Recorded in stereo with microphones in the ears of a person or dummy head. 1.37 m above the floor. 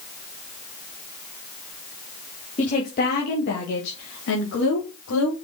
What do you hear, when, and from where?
2.6 s a woman speaking: 35° left (ahead or behind), 1.7 m; by 5.3 s 85° left, 3.5 m